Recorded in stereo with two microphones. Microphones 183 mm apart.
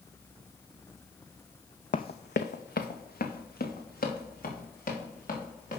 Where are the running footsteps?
55° left (ahead or behind), 0.5 m; by 5.8 s 50° left (ahead or behind), 4.5 m.